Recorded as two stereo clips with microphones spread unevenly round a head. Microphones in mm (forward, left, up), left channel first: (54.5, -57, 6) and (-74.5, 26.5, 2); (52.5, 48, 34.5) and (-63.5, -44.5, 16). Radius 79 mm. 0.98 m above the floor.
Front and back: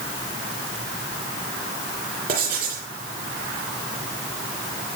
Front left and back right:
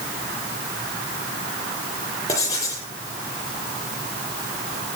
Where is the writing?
105° left, 8 m.